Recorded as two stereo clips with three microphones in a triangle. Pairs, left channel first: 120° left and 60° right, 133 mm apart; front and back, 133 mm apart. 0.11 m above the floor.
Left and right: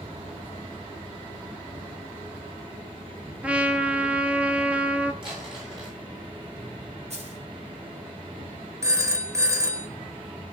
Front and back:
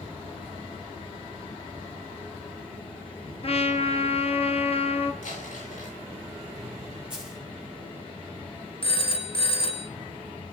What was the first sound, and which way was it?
A trumpet, 20° left.